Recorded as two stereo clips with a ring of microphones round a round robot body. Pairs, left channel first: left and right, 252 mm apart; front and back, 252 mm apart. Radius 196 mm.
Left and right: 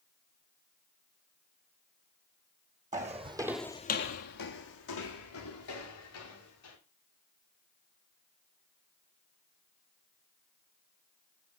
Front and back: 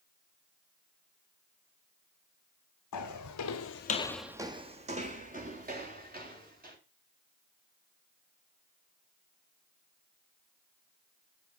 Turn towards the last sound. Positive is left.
turn(degrees=125)